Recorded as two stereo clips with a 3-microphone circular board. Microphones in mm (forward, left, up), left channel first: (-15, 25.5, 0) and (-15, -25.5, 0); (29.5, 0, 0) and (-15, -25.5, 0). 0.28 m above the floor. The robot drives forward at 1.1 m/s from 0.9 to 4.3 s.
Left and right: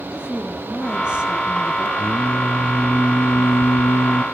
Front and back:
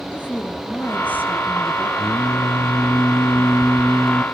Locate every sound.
0.1 s a woman speaking: 20° right, 4 m; by 1.9 s 25° right, 3 m
2.0 s singing: 15° left, 2 m; by 4.2 s 135° left, 0.8 m